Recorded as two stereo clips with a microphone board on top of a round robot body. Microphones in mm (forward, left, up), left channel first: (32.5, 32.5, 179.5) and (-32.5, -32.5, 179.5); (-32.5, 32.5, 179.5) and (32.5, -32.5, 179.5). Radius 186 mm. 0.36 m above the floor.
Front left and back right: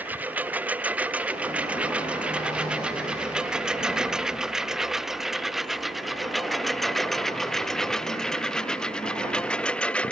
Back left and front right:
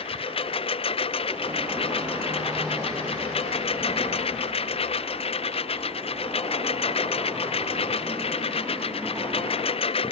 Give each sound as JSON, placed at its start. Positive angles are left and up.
{"t": 0.0, "sound": "a lawn mower", "azimuth_deg": 150}